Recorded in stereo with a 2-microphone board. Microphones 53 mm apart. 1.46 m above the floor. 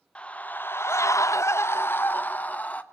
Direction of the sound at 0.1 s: 20° left (ahead or behind).